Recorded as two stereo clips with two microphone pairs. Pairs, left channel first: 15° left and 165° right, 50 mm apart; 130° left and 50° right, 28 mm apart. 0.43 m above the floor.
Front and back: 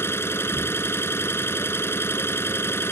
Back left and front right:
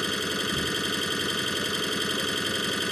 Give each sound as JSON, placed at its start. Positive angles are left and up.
{"t": 0.0, "sound": "an engine running", "azimuth_deg": 50}